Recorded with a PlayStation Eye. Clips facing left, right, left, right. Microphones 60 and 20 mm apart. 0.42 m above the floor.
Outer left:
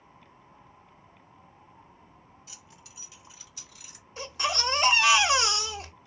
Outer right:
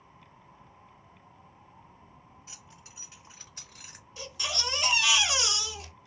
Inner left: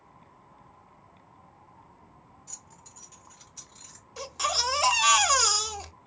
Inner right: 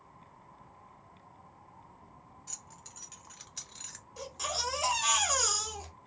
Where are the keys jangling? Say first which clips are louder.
Even, inner right 1 dB; 35° right (ahead or behind), 1.6 m; by 4.0 s 50° right (ahead or behind), 0.9 m.